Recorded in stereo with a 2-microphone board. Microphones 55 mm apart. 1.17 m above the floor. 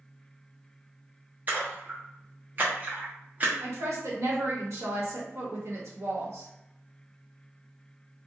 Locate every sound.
1.5 s a splash: 35° right (ahead or behind), 0.9 m
3.6 s a woman speaking: 65° right (ahead or behind), 1.3 m